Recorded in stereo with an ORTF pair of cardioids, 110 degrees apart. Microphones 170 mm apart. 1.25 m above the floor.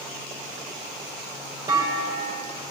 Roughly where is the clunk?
Ahead right.